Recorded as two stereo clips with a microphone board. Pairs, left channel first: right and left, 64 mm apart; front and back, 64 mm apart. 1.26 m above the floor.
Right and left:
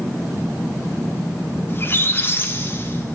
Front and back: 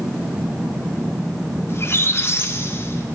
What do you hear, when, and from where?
1.7 s a squeak: 40° right, 0.6 m